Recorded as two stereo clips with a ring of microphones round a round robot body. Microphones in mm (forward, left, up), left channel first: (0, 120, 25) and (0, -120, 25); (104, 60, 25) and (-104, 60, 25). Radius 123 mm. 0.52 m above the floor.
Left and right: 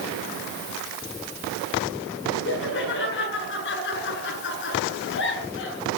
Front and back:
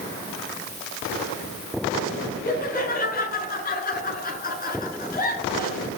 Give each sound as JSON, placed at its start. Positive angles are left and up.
{"t": 2.5, "sound": "laughter", "azimuth_deg": 45, "distance_m": 8.0}